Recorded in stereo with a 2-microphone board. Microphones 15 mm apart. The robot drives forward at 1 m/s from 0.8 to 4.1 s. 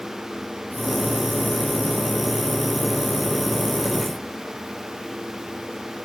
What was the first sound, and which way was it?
Only background noise.